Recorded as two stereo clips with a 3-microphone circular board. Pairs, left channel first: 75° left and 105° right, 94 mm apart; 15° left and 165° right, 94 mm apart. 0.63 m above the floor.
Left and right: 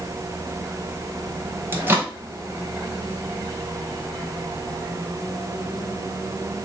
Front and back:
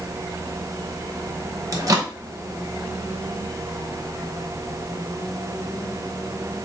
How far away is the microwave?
About 0.8 m.